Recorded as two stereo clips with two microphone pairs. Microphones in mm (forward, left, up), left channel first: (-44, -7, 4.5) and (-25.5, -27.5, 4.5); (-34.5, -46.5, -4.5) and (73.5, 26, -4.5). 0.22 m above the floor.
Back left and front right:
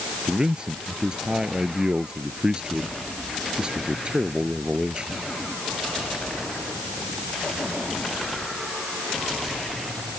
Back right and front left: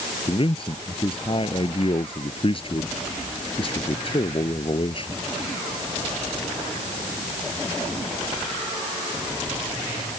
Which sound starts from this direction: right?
A man speaking, at 0.3 s.